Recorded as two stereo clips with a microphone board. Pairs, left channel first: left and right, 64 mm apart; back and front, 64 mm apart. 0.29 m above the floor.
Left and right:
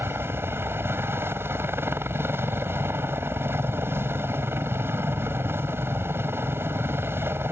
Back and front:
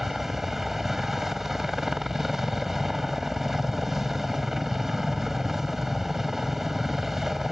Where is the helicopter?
85° right.